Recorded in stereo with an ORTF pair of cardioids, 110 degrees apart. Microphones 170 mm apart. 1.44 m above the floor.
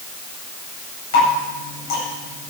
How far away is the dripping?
About 8 m.